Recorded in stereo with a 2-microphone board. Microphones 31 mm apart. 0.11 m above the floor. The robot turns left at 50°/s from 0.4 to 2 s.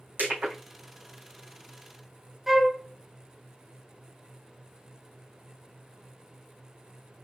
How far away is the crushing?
About 3 m.